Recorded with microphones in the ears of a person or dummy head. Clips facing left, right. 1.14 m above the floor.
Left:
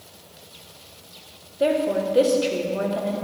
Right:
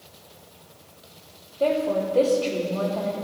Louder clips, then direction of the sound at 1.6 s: Left 1 dB; 10° left (ahead or behind).